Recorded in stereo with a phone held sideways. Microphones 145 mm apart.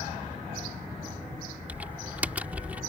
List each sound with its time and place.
1.7 s typing on a keyboard: 10° right (ahead or behind)